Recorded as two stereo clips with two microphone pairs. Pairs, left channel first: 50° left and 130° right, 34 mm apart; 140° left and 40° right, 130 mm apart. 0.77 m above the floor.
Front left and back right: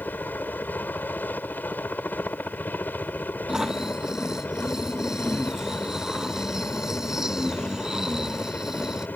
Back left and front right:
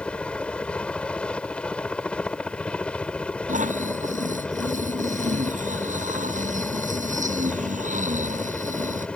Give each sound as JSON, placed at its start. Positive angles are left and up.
{"t": 0.0, "sound": "a helicopter", "azimuth_deg": 60}
{"t": 3.5, "sound": "snoring", "azimuth_deg": -55}